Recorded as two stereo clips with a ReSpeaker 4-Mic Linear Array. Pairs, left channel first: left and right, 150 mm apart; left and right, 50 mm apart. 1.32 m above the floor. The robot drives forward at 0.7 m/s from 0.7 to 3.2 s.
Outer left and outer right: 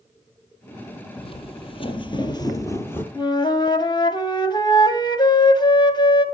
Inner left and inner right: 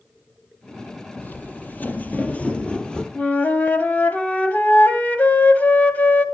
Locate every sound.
1.2 s footsteps: 35° left (ahead or behind), 2 m; by 3.0 s 15° left (ahead or behind), 1.7 m
3.1 s a flute: 30° left (ahead or behind), 1.7 m